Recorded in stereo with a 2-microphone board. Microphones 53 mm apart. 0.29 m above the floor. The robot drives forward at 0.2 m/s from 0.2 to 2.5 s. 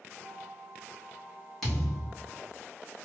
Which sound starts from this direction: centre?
A thud, at 1.6 s.